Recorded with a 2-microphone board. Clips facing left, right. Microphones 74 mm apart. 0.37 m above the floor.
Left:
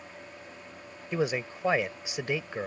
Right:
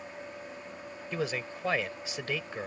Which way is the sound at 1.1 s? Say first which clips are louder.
Left 4 dB; 20° left (ahead or behind).